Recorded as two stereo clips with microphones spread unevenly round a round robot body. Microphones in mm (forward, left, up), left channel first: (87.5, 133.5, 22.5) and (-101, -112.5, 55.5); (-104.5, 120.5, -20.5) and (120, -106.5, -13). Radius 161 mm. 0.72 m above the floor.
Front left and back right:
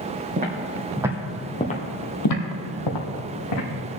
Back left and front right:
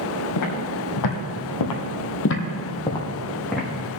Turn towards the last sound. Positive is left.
turn(degrees=45)